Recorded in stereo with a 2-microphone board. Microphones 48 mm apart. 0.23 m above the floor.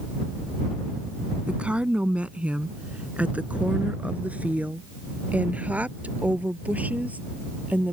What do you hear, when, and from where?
1.5 s a woman speaking: 25° right (ahead or behind); by 7.9 s 35° right (ahead or behind)